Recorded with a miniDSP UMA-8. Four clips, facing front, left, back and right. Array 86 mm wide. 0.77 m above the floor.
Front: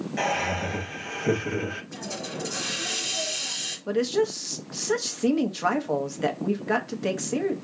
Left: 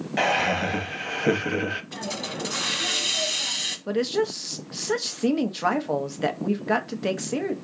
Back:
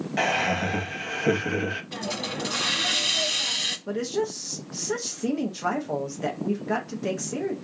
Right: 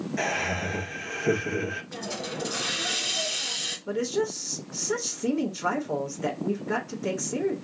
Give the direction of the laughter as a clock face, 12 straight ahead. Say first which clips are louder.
Left 8 dB, back 2 dB; 8 o'clock.